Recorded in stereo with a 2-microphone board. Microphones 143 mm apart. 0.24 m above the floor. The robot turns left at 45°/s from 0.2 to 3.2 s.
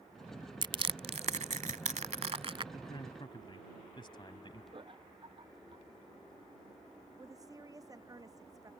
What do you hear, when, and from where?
0.6 s crushing: 35° right (ahead or behind); by 2.6 s 40° right (ahead or behind)
2.7 s a man speaking: 35° left (ahead or behind)
4.7 s laughter: 35° right (ahead or behind)
7.2 s a woman speaking: 25° right (ahead or behind)